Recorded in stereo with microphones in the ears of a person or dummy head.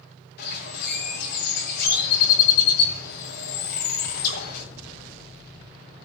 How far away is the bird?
About 6 m.